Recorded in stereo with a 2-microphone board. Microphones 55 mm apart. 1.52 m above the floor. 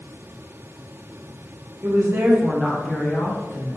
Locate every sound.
1.8 s a woman speaking: 55° right (ahead or behind), 0.7 m; by 3.8 s 50° left (ahead or behind), 0.9 m